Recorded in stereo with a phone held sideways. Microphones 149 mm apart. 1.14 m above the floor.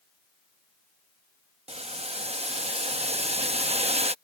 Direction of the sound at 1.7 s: 45° right (ahead or behind).